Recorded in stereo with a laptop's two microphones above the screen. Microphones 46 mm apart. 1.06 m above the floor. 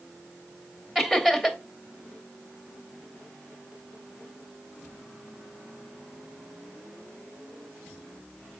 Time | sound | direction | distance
0.9 | laughter | 10° right (ahead or behind) | 3 m